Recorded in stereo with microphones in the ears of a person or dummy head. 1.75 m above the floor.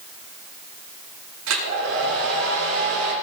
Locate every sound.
1.5 s a hair dryer: 75° right (ahead or behind), 9 m